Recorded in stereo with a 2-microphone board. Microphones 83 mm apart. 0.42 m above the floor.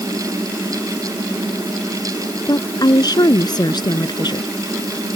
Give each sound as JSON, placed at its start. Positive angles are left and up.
{"t": 2.5, "sound": "a woman speaking", "side_deg": 55}